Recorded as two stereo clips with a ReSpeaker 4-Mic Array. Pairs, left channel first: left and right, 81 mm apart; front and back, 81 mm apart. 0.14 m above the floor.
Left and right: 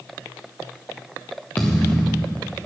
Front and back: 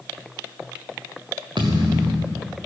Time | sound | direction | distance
1.6 | a thud | 160° left | 2.5 m